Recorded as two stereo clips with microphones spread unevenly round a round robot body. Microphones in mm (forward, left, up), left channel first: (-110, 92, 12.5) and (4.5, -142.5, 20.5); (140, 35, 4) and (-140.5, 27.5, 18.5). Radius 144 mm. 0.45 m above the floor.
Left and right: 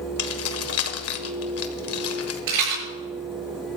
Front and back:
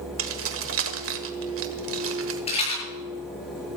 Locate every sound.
0.2 s keys jangling: 140° left, 1.5 m
2.5 s a rattle: 70° right, 7 m